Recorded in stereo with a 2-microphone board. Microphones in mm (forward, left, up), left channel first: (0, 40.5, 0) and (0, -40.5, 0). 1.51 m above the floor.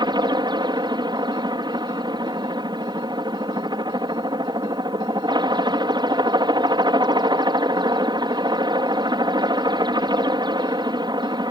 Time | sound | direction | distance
0.0 | a helicopter | 65° right (ahead or behind) | ?